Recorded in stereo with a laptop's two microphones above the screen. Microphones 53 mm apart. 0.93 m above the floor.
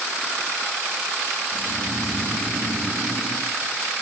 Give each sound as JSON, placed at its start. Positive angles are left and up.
{"t": 1.5, "sound": "snoring", "side_deg": -85, "distance_m": 6.5}